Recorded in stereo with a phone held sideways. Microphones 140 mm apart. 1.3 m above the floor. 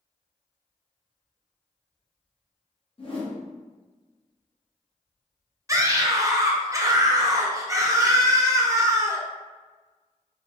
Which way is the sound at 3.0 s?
40° left (ahead or behind).